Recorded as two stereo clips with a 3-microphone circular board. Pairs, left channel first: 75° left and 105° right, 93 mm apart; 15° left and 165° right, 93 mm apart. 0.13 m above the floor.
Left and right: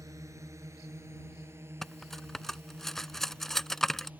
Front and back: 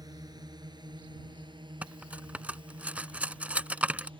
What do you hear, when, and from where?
0.0 s a drone: 145° right; by 4.2 s 175° right
1.8 s cutlery clinking: 150° left